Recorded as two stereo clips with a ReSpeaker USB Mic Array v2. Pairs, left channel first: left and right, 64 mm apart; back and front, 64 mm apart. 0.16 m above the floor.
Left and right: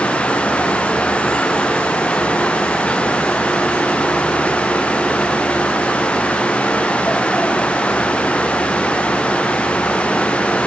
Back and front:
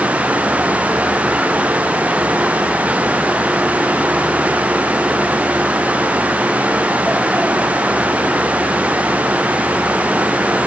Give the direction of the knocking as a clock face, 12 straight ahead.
No knocking in this recording.